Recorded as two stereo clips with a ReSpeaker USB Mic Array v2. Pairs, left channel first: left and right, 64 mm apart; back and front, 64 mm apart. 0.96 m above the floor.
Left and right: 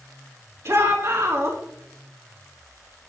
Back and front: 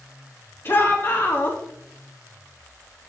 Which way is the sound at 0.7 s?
130° right.